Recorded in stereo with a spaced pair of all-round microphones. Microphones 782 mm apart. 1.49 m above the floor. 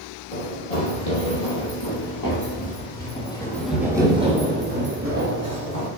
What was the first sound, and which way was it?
Running footsteps, 55° left (ahead or behind).